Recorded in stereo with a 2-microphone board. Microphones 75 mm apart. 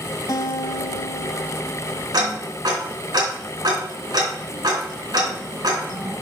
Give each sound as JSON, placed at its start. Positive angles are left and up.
{"t": 0.3, "sound": "a guitar", "side_deg": 55, "distance_m": 0.8}
{"t": 2.1, "sound": "ticking", "side_deg": -70, "distance_m": 4.0}